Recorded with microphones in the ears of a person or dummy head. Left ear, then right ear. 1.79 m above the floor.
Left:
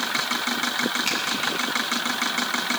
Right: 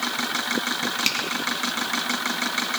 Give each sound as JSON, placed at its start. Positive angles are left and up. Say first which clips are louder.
{"t": 1.1, "sound": "a finger snap", "louder": "right 1 dB", "side_deg": -40, "distance_m": 3.0}